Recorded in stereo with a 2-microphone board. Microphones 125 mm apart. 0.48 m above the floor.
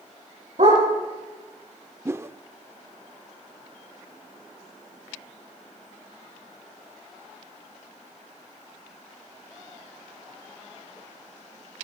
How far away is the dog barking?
About 8.5 m.